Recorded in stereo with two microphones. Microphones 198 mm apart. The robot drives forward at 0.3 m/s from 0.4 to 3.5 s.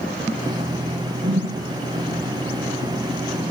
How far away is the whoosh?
About 1.0 m.